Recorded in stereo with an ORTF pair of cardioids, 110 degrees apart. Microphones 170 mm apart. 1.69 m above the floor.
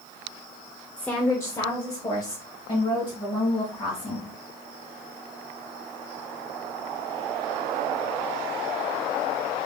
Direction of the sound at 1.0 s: 5° left.